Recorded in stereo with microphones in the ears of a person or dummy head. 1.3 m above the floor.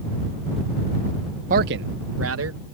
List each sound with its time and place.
1.5 s a man speaking: 40° right (ahead or behind); by 2.6 s 80° right